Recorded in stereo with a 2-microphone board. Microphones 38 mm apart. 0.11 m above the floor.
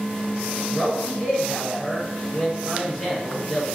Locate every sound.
0.7 s a man speaking: 10° left (ahead or behind), 1.9 m